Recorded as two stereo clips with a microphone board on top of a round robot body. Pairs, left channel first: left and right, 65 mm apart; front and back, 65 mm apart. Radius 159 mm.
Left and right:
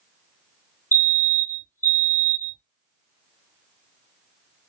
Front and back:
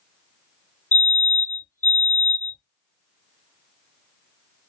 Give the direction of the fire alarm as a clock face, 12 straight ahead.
10 o'clock.